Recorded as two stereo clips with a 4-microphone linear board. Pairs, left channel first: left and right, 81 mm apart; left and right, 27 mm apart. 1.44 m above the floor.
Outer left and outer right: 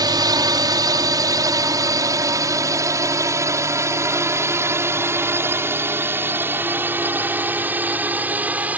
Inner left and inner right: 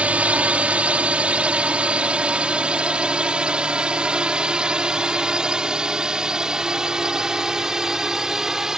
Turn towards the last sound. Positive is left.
turn(degrees=-20)  # may be behind; listen again after turning